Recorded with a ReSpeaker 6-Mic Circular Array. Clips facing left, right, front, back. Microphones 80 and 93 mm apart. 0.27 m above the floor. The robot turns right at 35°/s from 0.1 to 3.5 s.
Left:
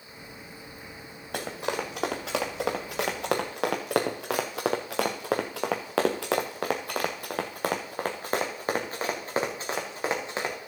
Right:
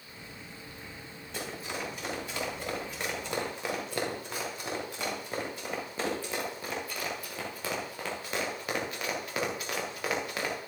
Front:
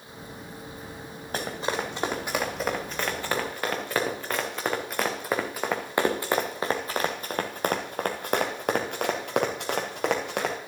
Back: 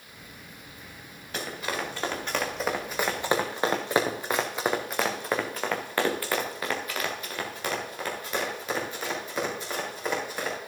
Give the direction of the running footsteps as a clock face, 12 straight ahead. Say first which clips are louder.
Left 7 dB, front 3 dB; 10 o'clock.